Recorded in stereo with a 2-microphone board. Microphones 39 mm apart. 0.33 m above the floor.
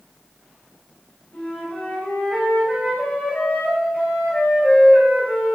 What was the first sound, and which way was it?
A flute, 30° left (ahead or behind).